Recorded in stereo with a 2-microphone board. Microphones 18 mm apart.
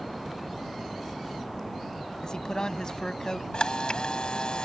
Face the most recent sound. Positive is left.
turn(degrees=60)  # may be behind; listen again after turning